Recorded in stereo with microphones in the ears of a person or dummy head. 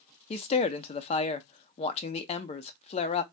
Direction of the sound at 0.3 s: 35° left (ahead or behind).